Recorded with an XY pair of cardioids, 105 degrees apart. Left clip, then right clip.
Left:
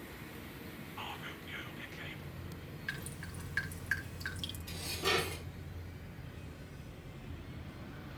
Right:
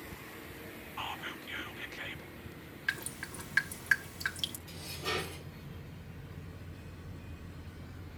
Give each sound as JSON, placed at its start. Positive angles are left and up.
{"t": 1.0, "sound": "whispering", "azimuth_deg": -35, "distance_m": 1.9}
{"t": 2.9, "sound": "dripping", "azimuth_deg": -50, "distance_m": 3.0}
{"t": 4.7, "sound": "dishes clattering", "azimuth_deg": 35, "distance_m": 6.5}